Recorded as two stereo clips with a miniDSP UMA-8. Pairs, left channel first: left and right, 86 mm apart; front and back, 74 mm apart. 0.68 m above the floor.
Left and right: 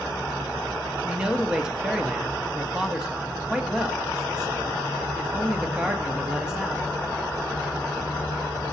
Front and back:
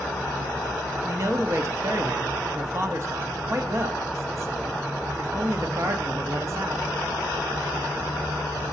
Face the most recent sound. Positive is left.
turn(degrees=-170)